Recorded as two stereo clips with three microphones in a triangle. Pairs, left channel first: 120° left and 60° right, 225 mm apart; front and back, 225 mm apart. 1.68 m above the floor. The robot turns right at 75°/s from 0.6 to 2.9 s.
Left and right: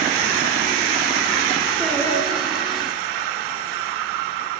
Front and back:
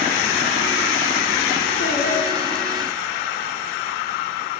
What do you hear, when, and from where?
1.8 s singing: 25° left, 3.5 m; by 2.9 s 110° left, 3.5 m